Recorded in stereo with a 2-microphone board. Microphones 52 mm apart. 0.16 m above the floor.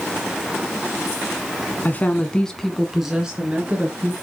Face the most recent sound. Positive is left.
turn(degrees=-25)  # may be behind; listen again after turning